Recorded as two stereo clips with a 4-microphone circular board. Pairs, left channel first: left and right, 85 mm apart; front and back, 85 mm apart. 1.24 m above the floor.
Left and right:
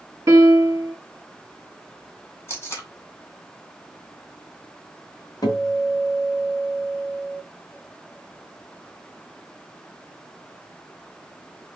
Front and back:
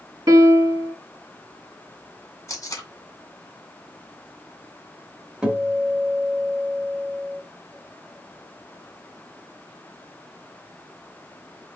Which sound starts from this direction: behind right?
A piano, at 0.3 s.